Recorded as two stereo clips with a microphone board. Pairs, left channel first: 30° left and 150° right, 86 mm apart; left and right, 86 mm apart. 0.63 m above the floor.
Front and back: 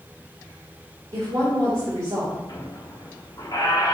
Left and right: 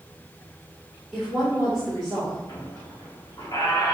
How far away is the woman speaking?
About 1.7 m.